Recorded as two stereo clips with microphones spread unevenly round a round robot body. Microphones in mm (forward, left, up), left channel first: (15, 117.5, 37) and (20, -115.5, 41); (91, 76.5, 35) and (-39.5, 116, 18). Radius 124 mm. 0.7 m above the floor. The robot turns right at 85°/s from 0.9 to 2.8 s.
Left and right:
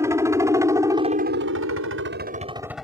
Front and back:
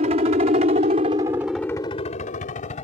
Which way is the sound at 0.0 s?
165° right.